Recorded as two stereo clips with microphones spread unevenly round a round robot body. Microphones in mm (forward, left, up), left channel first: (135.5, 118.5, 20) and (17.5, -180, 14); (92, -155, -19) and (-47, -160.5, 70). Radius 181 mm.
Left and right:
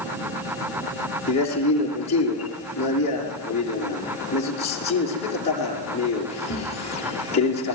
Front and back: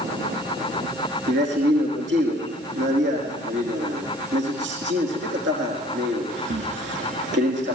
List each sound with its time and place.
1.3 s a man speaking: 145° left, 5 m